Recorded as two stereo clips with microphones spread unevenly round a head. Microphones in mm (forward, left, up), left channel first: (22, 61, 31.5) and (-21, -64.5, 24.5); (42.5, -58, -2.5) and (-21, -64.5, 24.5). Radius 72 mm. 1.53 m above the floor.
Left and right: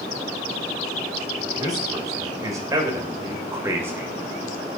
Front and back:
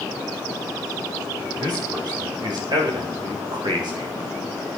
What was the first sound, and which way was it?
A man speaking, 175° right.